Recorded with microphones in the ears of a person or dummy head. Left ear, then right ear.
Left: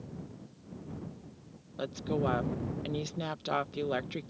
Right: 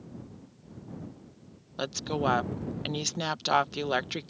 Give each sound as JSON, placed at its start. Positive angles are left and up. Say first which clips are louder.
{"t": 1.8, "sound": "a woman speaking", "louder": "right 3 dB", "side_deg": -30}